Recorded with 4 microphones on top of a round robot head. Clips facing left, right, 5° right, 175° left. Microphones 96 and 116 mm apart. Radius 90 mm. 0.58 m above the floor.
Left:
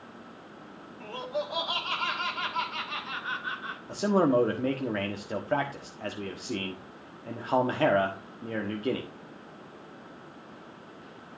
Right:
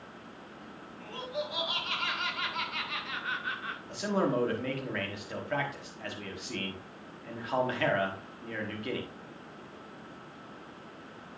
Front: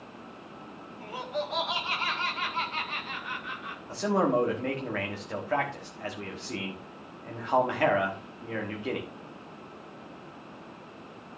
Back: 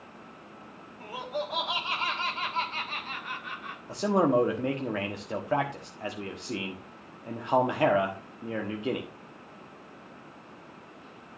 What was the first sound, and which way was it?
Laughter, 90° left.